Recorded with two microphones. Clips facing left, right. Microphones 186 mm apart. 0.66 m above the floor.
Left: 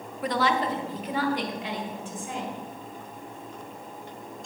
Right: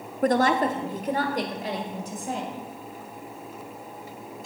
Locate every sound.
0.2 s a woman speaking: 45° right (ahead or behind), 0.8 m; by 2.5 s 40° right (ahead or behind), 3.5 m